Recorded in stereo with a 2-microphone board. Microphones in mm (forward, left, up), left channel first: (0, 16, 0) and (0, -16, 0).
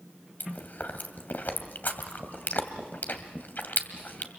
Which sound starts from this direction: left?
Chewing, at 0.4 s.